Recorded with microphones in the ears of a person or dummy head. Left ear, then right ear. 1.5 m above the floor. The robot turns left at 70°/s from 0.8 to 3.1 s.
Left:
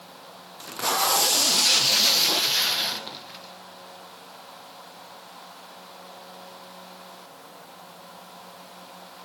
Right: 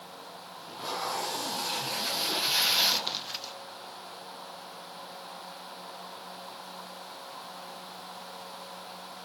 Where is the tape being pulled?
125° left, 1.1 m; by 3.5 s 35° right, 1.1 m.